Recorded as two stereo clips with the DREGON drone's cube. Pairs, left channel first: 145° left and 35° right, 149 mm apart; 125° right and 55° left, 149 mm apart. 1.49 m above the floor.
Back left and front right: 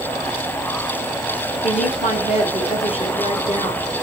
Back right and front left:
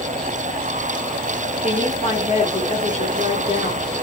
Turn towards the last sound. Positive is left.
turn(degrees=-170)